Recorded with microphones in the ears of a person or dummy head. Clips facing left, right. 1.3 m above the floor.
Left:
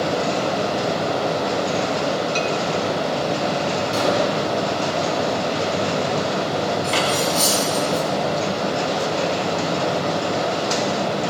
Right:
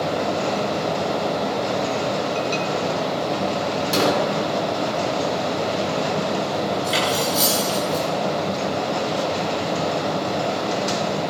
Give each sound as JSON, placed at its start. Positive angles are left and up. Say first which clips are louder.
{"t": 0.0, "sound": "a fan", "louder": "left 1 dB", "side_deg": 10, "distance_m": 4.0}
{"t": 3.9, "sound": "a gunshot", "louder": "right 1 dB", "side_deg": -70, "distance_m": 2.0}
{"t": 6.8, "sound": "cutlery clinking", "louder": "left 1 dB", "side_deg": -10, "distance_m": 7.0}